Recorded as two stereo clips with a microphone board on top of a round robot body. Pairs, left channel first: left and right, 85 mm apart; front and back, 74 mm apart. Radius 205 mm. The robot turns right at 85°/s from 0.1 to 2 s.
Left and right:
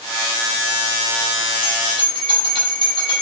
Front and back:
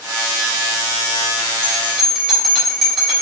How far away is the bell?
About 3 m.